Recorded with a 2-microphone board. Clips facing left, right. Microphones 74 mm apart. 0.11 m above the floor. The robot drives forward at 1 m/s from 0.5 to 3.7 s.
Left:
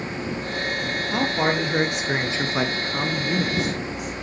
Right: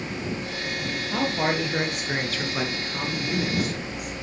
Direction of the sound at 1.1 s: 15° left (ahead or behind).